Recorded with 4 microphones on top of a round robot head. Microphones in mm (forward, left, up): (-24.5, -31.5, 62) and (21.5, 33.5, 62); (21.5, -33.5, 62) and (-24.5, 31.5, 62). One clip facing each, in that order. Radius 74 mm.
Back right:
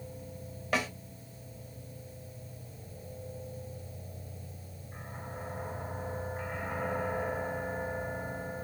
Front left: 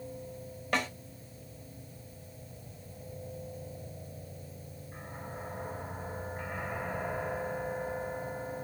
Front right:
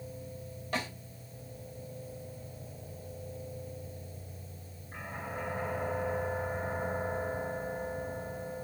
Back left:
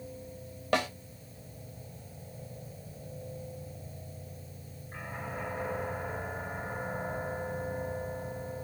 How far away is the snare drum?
About 3 m.